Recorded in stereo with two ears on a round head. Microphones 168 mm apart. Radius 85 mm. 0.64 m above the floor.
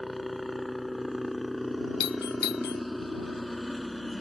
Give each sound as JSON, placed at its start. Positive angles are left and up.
{"t": 0.0, "sound": "a helicopter", "side_deg": 0}
{"t": 2.0, "sound": "a doorbell", "side_deg": 55}